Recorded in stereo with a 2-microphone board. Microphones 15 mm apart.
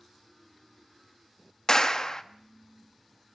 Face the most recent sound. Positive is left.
turn(degrees=40)  # may be behind; listen again after turning